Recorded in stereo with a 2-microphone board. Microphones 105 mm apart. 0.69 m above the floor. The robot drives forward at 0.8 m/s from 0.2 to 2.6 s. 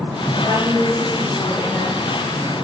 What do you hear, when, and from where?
0.4 s a woman speaking: 40° right (ahead or behind), 4.5 m; by 2.0 s 50° right (ahead or behind), 3.5 m